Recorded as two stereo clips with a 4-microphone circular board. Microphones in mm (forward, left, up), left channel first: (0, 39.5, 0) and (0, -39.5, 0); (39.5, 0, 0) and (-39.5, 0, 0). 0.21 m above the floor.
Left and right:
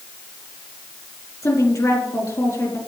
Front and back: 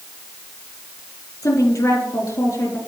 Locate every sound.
1.4 s a woman speaking: 50° left, 5 m